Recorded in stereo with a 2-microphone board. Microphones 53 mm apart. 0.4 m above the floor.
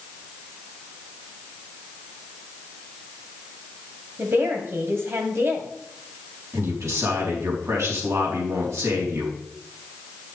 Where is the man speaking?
65° right (ahead or behind), 4 m.